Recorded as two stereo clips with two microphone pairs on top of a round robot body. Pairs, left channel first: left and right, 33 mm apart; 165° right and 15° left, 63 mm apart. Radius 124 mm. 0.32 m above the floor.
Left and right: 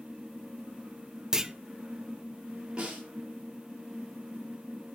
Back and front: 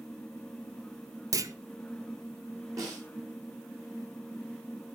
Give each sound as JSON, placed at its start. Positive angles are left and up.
{"t": 1.3, "sound": "a clunk", "azimuth_deg": -15, "distance_m": 1.2}
{"t": 2.8, "sound": "a snare drum", "azimuth_deg": -25, "distance_m": 8.5}